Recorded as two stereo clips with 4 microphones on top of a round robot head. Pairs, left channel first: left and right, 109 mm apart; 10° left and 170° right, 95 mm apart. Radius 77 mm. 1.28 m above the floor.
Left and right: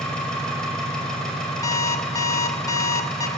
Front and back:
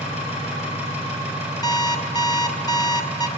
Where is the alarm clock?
40° left, 0.9 m.